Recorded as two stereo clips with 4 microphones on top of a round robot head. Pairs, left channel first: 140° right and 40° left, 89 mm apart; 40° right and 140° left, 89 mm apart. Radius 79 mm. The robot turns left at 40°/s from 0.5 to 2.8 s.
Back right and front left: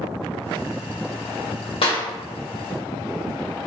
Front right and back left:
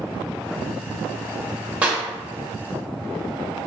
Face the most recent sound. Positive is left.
turn(degrees=175)